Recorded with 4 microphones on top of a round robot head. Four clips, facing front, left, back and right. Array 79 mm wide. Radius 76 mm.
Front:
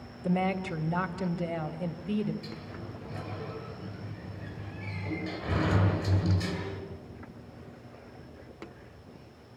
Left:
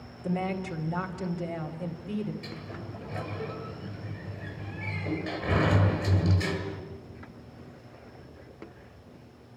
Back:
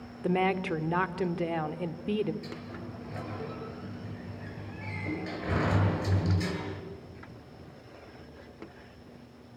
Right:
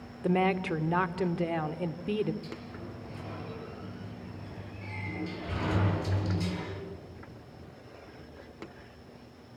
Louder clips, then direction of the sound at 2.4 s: Left 1 dB, back 1 dB; 120° left.